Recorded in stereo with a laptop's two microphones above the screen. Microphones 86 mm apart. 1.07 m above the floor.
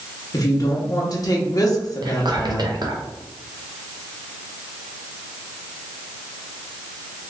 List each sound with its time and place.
0.3 s a woman speaking: 45° left (ahead or behind), 0.9 m
2.0 s whispering: 55° right (ahead or behind), 0.6 m